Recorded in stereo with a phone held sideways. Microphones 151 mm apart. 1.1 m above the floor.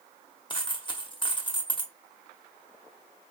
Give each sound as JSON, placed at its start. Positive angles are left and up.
{"t": 0.5, "sound": "a dropped coin", "side_deg": 35, "distance_m": 1.0}